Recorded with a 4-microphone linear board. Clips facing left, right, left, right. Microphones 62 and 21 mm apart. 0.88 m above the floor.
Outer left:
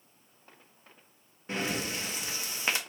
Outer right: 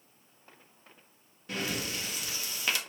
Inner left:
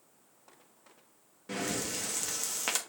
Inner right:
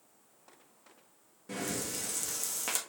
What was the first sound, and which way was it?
Breathing, 25° left (ahead or behind).